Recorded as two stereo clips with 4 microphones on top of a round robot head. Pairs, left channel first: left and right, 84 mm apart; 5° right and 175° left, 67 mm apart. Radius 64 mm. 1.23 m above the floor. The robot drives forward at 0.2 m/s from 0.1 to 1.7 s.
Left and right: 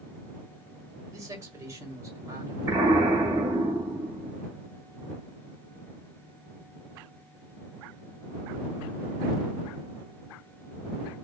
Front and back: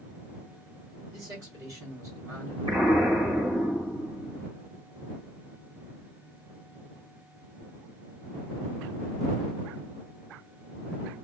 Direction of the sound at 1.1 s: 140° right.